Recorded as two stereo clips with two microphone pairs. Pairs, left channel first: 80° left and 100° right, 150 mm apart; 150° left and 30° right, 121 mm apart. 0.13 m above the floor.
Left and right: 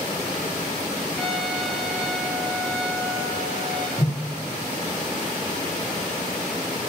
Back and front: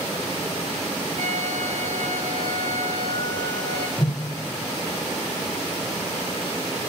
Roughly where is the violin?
Ahead.